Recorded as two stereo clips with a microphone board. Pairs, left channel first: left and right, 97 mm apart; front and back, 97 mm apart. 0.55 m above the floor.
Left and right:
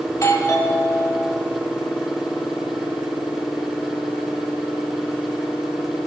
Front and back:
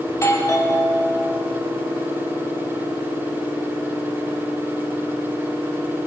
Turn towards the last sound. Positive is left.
turn(degrees=45)